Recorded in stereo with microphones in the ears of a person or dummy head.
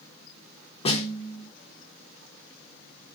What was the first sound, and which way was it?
A snare drum, 35° left (ahead or behind).